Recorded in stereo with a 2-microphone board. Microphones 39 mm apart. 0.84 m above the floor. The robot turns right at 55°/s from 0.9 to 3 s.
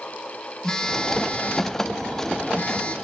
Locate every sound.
0.6 s a phone buzzing: 20° left, 0.8 m; by 3.0 s 135° left, 0.8 m